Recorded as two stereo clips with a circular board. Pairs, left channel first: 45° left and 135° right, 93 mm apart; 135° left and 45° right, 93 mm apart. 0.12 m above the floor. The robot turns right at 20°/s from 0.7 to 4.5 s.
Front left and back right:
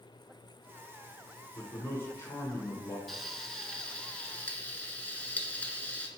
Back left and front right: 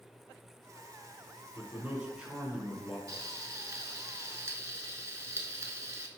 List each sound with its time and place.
1.6 s a man speaking: 10° left, 1.2 m; by 3.0 s 40° left, 1.2 m
3.1 s frying: 40° right, 0.7 m; by 6.1 s 15° right, 0.7 m